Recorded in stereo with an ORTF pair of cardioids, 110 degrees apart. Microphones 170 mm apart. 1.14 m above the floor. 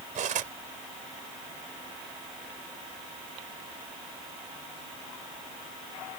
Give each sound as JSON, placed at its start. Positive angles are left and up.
{"t": 0.1, "sound": "cutlery clinking", "azimuth_deg": -50}